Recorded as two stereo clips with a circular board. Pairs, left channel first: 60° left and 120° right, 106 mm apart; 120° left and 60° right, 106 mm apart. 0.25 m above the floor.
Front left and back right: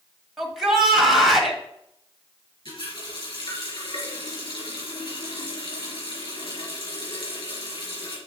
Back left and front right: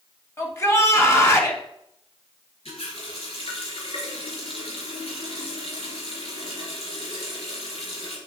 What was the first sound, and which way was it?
A shout, 155° left.